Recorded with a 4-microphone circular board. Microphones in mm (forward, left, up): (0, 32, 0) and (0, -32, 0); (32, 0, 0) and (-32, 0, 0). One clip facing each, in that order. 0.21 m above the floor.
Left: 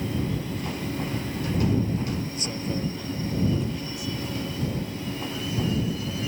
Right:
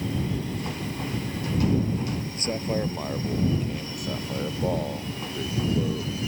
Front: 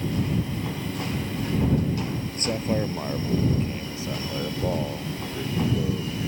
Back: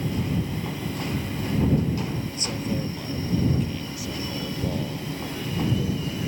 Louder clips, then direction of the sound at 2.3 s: Right 3 dB, front 7 dB; 45° right.